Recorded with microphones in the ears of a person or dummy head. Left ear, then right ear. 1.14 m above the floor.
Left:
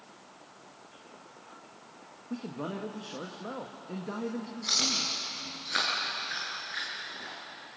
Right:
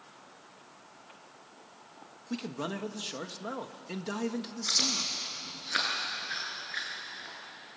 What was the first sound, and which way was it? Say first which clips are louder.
A man speaking: right 1 dB; 70° right (ahead or behind).